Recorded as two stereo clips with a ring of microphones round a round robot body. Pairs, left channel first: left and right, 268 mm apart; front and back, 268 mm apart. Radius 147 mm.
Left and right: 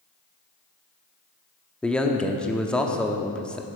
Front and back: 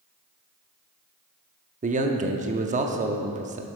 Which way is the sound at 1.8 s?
170° left.